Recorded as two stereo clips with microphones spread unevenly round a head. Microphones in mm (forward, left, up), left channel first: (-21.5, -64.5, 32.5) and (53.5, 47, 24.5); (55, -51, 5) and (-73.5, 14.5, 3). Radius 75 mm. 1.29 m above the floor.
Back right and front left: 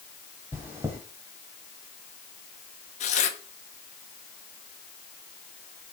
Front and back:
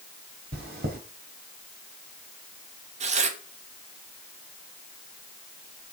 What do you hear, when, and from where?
0.5 s chewing: 130° left, 2.5 m
3.0 s tearing paper: 165° right, 1.3 m